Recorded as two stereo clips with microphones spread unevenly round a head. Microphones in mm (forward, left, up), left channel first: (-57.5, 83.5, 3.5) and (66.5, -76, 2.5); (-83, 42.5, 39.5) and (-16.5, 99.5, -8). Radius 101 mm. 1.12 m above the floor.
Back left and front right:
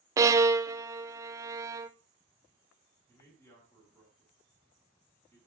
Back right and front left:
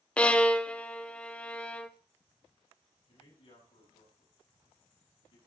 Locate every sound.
0.2 s a violin: straight ahead, 0.6 m
3.1 s a man speaking: 155° right, 8 m